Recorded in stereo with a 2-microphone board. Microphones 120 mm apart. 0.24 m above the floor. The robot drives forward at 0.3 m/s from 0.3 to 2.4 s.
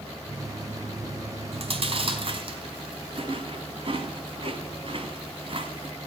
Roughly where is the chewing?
Right.